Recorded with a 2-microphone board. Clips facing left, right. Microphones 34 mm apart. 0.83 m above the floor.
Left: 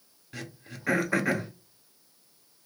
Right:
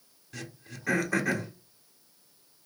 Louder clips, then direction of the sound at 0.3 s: Left 1 dB; 20° left (ahead or behind).